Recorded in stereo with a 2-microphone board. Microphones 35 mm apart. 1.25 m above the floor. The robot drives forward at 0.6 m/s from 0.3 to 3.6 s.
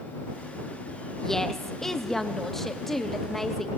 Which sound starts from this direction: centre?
A woman speaking, at 1.2 s.